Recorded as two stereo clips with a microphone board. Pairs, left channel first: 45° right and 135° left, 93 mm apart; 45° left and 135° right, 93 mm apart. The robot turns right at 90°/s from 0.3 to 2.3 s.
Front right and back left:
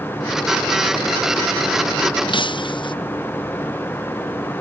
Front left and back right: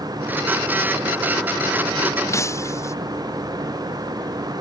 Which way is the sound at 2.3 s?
15° right.